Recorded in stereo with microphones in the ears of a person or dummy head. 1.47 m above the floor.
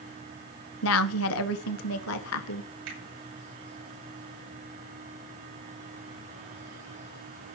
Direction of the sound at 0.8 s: 75° left (ahead or behind).